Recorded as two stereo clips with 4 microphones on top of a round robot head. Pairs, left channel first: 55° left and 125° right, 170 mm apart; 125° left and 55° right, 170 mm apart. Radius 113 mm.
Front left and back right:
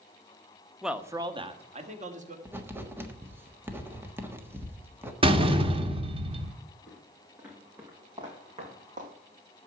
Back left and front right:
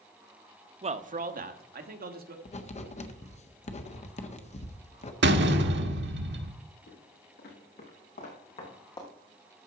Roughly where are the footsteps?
Behind left.